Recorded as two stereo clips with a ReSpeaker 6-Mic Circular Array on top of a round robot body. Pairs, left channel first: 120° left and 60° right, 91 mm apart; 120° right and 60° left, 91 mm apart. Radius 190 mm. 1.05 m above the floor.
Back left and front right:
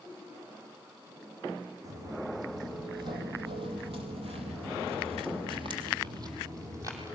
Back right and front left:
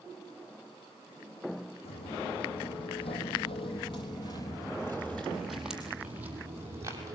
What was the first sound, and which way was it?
Footsteps, 115° right.